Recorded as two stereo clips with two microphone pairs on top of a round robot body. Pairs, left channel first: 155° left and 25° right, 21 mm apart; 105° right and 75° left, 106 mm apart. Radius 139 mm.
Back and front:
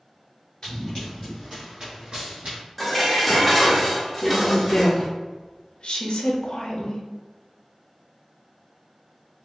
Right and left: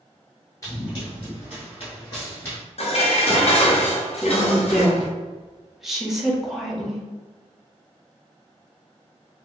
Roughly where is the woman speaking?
Behind.